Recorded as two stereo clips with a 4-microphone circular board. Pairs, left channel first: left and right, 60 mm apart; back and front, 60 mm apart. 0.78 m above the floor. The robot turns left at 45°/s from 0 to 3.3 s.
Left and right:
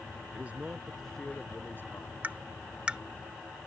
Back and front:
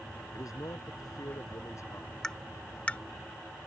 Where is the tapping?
110° right; by 3.0 s 145° right.